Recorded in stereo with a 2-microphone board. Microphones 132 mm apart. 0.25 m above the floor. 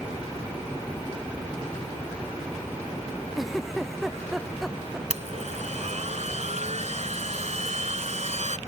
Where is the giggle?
Centre (ahead or behind).